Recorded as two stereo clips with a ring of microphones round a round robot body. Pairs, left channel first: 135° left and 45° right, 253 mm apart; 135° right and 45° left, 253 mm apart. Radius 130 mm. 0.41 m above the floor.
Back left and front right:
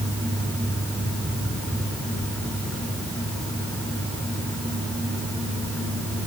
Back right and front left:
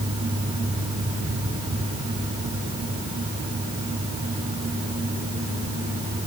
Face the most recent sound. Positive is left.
No sound to turn to.